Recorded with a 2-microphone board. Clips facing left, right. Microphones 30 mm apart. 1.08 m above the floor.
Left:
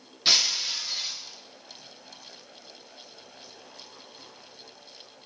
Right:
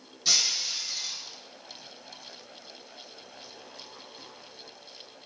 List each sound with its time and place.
0.2 s breaking glass: 50° left (ahead or behind), 1.2 m